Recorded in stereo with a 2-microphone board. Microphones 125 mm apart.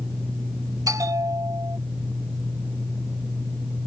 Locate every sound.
0.9 s a bell: 25° right (ahead or behind)